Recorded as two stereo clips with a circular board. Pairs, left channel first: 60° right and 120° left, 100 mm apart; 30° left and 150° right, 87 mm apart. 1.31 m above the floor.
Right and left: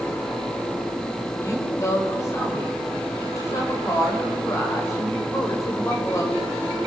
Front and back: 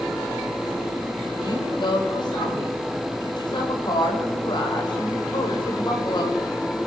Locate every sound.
1.4 s a woman speaking: straight ahead, 6.5 m